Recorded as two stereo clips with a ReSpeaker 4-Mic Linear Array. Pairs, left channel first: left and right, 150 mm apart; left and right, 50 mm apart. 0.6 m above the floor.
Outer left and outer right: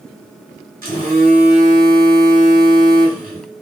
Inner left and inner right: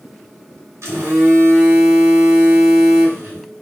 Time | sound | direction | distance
0.8 | a phone buzzing | 75° right (ahead or behind) | 1.1 m